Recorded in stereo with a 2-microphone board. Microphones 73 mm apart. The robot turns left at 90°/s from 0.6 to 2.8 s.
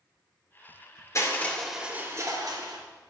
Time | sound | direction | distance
1.1 | crushing | 45° left | 3 m